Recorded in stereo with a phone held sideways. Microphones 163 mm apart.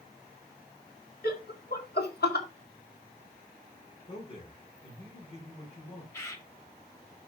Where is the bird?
20° left (ahead or behind), 1.5 m.